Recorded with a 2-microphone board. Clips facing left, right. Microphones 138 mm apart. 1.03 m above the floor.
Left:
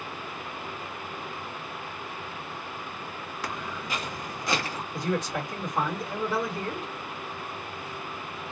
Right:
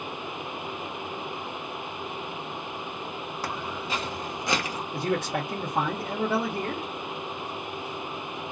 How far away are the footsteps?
About 1.8 m.